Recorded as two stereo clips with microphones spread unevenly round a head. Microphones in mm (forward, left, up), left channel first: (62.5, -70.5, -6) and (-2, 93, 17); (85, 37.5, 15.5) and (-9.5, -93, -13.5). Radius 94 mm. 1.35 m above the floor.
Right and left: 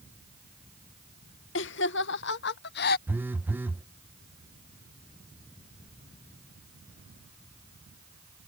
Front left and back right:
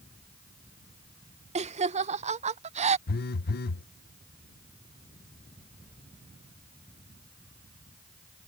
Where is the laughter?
85° right; by 3.0 s 90° right.